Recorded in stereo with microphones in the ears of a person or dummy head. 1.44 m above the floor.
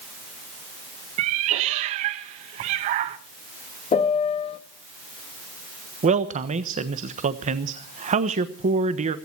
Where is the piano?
30° left (ahead or behind), 0.9 m.